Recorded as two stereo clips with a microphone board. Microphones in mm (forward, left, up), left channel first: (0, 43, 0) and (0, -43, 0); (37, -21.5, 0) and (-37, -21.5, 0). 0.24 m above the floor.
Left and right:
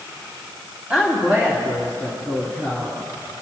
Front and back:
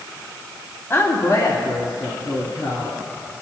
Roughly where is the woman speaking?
Ahead.